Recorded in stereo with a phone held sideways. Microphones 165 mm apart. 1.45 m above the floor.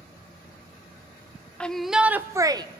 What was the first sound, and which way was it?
A shout, 5° left (ahead or behind).